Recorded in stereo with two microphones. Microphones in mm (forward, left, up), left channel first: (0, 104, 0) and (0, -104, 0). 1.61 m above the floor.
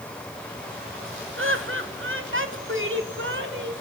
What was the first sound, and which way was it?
Laughter, 75° right (ahead or behind).